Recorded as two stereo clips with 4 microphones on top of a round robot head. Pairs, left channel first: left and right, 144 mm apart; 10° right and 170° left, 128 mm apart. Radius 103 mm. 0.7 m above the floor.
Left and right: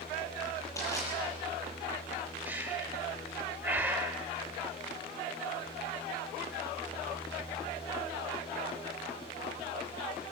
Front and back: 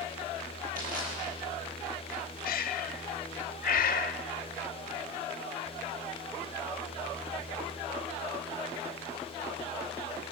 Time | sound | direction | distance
0.8 | crushing | 160° left | 9.5 m
2.5 | breathing | 10° right | 0.8 m